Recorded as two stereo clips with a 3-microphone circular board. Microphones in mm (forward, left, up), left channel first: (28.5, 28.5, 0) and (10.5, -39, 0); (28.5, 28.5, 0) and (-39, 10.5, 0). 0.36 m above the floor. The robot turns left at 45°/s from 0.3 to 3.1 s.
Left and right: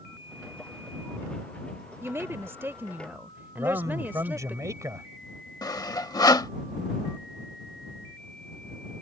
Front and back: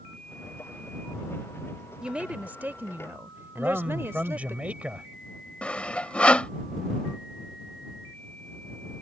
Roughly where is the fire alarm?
I don't hear a fire alarm.